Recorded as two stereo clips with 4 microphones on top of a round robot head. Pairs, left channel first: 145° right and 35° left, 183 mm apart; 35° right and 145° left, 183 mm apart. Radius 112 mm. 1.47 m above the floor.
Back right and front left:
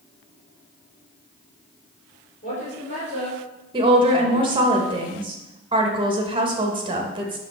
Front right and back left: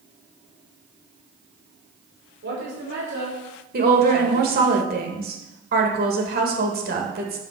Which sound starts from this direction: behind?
A woman speaking, at 2.4 s.